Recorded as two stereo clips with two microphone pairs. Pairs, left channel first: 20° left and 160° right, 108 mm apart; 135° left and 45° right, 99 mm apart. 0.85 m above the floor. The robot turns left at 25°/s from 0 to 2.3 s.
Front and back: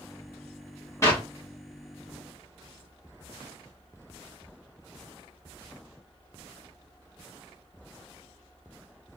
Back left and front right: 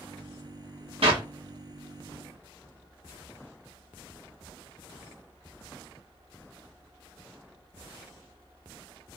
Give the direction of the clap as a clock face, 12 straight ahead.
1 o'clock.